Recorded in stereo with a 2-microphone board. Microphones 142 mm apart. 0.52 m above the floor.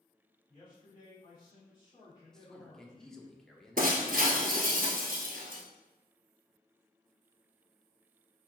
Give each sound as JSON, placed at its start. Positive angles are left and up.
{"t": 0.5, "sound": "a man speaking", "side_deg": 30, "distance_m": 1.5}
{"t": 2.3, "sound": "a man speaking", "side_deg": 5, "distance_m": 0.7}
{"t": 3.8, "sound": "breaking glass", "side_deg": -75, "distance_m": 1.3}